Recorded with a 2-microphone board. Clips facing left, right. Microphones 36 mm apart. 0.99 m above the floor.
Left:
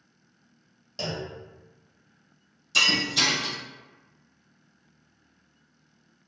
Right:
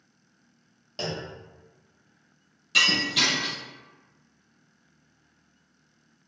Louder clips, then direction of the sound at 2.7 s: Right 1 dB; 40° right (ahead or behind).